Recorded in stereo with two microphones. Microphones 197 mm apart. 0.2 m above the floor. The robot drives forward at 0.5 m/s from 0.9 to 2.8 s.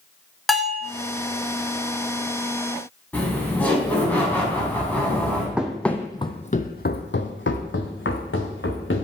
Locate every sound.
0.5 s a bell: centre (ahead or behind), 0.6 m
3.1 s laughter: 10° left (ahead or behind), 1.4 m
5.6 s running footsteps: 5° right (ahead or behind), 0.7 m; by 9.0 s 80° left, 1.5 m